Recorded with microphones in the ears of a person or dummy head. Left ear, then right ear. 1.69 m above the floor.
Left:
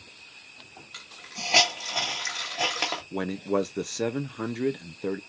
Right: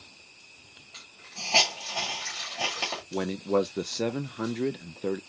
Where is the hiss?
45° left (ahead or behind), 1.8 m.